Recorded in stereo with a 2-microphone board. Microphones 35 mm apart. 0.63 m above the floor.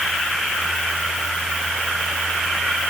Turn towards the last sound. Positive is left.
No sound to turn to.